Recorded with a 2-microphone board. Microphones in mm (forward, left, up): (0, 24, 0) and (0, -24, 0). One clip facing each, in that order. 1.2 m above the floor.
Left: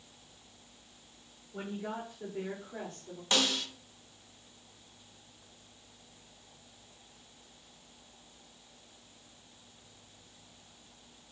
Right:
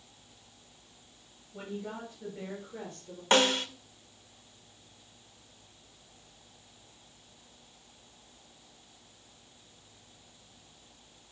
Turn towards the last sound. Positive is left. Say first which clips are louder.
# right 6 dB
turn(degrees=-35)  # may be behind; listen again after turning